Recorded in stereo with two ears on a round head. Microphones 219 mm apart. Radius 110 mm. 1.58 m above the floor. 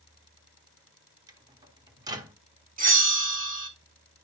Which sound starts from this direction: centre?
A microwave, at 1.3 s.